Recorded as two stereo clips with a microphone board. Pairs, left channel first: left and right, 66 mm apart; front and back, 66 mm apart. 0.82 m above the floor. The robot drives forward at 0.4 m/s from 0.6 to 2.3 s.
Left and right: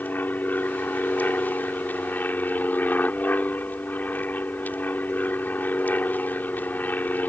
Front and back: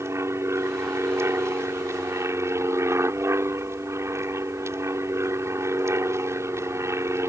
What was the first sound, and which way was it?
An aircraft, 145° left.